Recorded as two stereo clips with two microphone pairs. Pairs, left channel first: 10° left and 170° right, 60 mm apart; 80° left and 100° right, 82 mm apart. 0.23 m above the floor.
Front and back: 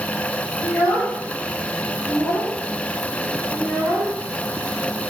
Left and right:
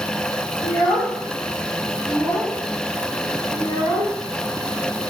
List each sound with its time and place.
0.6 s a child speaking: 45° left, 2.0 m